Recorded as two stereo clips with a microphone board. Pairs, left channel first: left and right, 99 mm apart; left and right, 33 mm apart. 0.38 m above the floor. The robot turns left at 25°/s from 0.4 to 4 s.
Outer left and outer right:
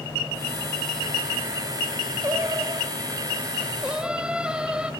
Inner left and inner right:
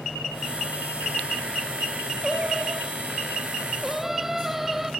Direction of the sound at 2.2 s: 120° right.